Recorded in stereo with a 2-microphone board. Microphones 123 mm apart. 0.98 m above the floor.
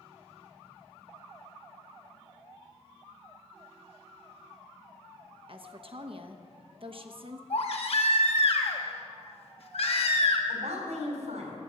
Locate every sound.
5.5 s a woman speaking: 50° right (ahead or behind), 0.9 m
7.5 s a baby crying: 55° left (ahead or behind), 1.2 m
10.5 s a woman speaking: 80° right, 4 m